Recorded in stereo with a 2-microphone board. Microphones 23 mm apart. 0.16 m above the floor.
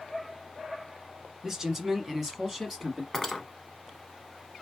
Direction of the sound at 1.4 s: 25° right (ahead or behind).